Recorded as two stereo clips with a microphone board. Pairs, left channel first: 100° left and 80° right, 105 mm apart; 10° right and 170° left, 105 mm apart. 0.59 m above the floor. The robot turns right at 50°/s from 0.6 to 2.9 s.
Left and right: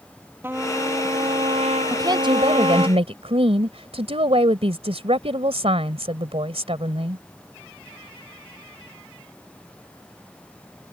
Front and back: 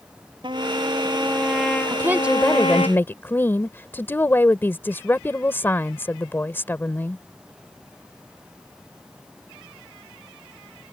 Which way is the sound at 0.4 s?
150° right.